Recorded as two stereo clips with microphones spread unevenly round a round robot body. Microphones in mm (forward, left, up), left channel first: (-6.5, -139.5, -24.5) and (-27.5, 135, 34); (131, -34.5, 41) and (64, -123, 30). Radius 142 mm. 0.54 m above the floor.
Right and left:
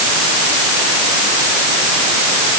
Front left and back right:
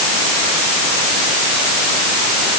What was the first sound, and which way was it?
Only background noise.